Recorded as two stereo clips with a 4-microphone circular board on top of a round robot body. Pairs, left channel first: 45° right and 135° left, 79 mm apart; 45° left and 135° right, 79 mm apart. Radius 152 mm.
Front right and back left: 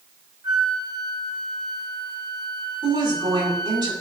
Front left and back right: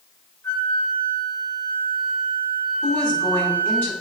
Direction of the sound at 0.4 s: 105° left.